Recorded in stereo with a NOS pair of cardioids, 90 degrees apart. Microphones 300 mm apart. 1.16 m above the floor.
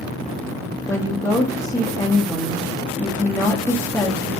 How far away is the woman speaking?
About 0.8 m.